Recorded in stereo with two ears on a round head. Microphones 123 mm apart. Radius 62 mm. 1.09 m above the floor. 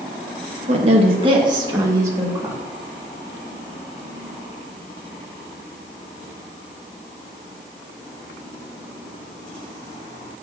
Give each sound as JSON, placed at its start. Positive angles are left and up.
{"t": 0.7, "sound": "a woman speaking", "side_deg": -50, "distance_m": 1.3}